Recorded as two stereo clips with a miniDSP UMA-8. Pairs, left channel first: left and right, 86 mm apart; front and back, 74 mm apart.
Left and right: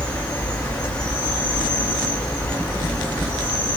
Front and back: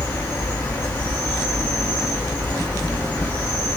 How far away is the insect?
About 2.0 m.